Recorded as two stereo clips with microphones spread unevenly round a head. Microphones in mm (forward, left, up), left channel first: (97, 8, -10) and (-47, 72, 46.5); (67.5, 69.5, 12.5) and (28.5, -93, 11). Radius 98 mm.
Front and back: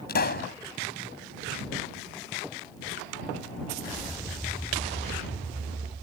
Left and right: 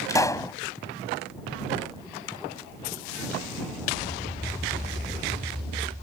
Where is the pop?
5° left.